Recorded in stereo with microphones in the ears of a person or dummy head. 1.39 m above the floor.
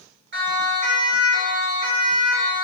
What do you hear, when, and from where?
0.3 s a siren: 60° right (ahead or behind), 6.5 m; by 2.6 s 45° right (ahead or behind), 7 m